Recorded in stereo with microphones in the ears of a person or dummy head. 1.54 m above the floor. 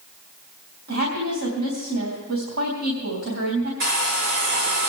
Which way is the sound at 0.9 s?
85° right.